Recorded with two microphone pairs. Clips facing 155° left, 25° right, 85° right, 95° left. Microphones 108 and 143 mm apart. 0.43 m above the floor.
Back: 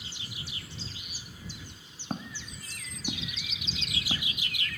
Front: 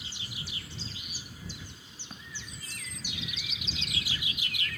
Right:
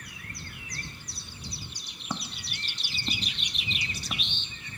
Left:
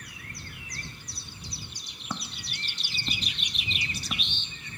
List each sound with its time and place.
2.1 s footsteps: 165° right